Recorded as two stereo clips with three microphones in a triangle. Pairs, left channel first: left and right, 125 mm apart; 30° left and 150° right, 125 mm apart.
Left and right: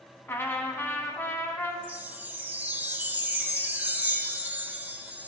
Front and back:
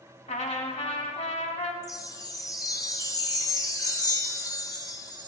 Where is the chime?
20° right, 0.5 m.